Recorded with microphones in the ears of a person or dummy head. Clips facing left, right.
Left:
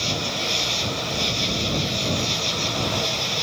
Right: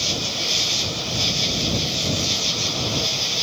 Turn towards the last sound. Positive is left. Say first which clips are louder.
# left 1 dB
turn(degrees=-5)  # may be behind; listen again after turning